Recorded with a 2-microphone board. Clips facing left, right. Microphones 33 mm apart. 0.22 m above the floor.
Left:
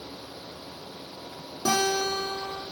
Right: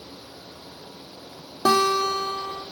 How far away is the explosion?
No explosion in this recording.